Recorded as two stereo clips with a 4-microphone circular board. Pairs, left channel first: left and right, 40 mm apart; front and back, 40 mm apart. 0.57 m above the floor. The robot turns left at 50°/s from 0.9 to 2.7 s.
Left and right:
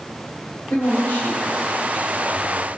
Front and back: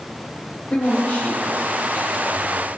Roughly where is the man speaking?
Ahead left.